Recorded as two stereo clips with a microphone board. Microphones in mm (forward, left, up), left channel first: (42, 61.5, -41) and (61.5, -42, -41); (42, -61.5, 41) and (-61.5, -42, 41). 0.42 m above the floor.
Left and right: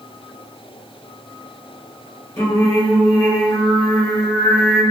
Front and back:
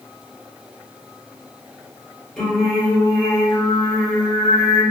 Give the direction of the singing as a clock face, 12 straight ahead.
10 o'clock.